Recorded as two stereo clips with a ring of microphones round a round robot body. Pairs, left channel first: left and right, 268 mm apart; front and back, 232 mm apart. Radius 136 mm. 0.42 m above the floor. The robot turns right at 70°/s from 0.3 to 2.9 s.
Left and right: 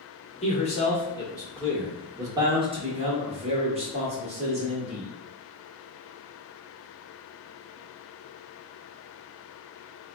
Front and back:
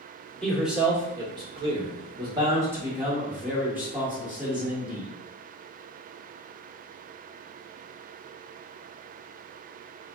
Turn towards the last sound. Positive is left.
turn(degrees=-105)